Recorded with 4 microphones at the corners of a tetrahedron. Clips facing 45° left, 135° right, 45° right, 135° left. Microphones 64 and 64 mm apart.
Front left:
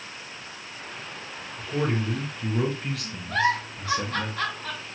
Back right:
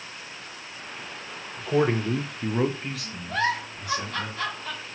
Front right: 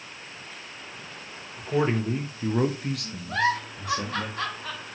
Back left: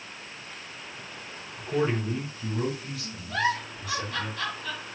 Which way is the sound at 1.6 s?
120° right.